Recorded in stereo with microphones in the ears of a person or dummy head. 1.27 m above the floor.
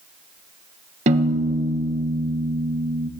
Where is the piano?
35° right (ahead or behind), 1.1 m.